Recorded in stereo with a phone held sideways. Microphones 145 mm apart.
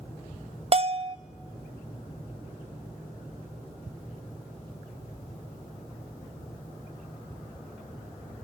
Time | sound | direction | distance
0.7 | a bell | 40° right (ahead or behind) | 0.6 m